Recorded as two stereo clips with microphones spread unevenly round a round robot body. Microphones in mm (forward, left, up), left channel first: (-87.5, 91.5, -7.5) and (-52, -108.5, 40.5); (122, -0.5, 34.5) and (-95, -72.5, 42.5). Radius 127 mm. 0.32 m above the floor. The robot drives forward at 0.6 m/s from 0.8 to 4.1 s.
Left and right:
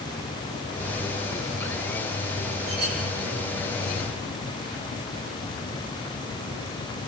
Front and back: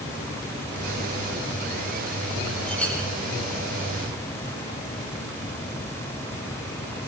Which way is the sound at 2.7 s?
65° right.